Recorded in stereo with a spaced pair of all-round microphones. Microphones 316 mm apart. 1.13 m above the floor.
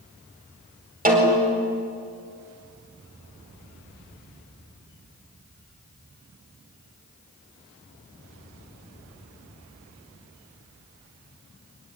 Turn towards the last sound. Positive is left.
turn(degrees=-25)  # may be behind; listen again after turning